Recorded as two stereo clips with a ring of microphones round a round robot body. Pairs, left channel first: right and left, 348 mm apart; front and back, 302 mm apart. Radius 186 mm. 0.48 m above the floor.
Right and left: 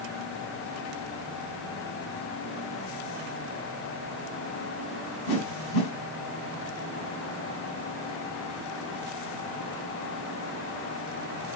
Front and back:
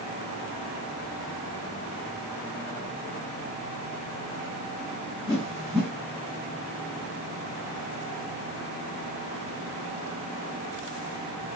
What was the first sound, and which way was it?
A whoosh, 90° right.